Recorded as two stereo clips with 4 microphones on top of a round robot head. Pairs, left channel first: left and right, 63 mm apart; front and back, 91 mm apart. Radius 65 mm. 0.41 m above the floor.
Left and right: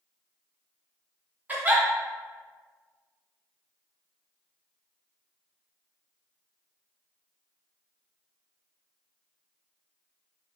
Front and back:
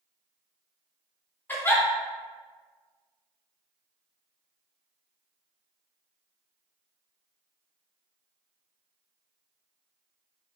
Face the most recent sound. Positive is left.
turn(degrees=-50)